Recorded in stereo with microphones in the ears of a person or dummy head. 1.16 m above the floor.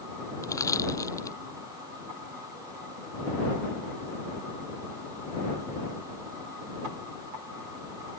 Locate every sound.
0.4 s crushing: 15° left (ahead or behind)